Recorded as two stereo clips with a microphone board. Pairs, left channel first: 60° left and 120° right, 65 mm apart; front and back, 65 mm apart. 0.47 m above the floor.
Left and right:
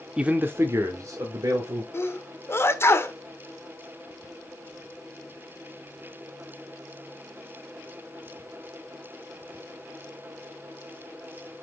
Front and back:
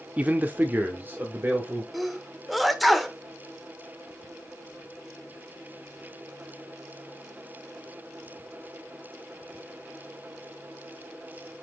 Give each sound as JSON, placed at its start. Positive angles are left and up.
{"t": 0.2, "sound": "a man speaking", "azimuth_deg": -170, "distance_m": 0.8}
{"t": 1.9, "sound": "a sneeze", "azimuth_deg": 90, "distance_m": 1.1}